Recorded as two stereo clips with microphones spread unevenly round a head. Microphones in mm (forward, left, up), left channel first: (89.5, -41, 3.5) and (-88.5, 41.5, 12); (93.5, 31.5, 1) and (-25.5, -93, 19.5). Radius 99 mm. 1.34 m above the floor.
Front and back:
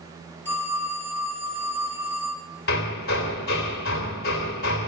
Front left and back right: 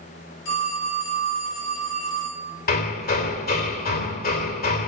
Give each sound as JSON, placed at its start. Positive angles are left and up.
{"t": 0.5, "sound": "a phone ringing", "azimuth_deg": 55, "distance_m": 8.0}
{"t": 2.7, "sound": "hammering", "azimuth_deg": 15, "distance_m": 3.0}